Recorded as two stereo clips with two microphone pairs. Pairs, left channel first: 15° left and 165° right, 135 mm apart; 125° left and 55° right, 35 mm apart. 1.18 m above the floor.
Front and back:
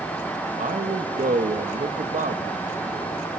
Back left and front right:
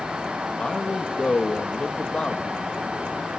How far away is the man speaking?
About 1.5 m.